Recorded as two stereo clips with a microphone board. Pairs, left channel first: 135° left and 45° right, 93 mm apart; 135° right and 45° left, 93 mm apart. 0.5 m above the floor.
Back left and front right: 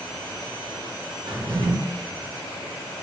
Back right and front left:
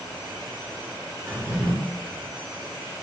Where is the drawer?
25° right, 1.1 m.